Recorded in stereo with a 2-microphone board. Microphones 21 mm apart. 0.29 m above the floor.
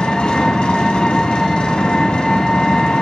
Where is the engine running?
55° left (ahead or behind), 1.1 m.